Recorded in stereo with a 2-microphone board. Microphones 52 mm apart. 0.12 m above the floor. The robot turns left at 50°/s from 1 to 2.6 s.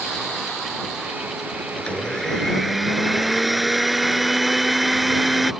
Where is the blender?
40° left; by 5.5 s 5° right.